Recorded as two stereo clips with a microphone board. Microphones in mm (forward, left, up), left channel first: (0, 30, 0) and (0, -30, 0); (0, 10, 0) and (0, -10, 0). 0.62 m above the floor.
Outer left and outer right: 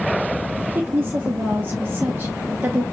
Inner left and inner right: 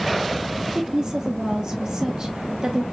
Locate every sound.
0.6 s a woman speaking: 40° right (ahead or behind), 0.9 m